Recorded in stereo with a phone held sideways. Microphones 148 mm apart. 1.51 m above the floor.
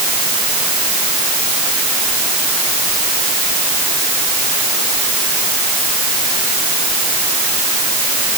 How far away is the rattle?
No rattle in this recording.